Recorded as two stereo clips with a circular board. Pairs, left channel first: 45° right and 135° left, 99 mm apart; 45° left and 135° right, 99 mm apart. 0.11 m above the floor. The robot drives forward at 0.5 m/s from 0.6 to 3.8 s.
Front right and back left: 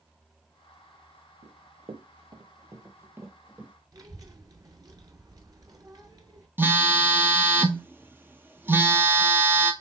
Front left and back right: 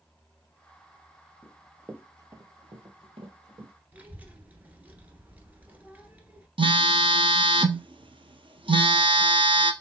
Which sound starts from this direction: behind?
A child speaking, at 3.9 s.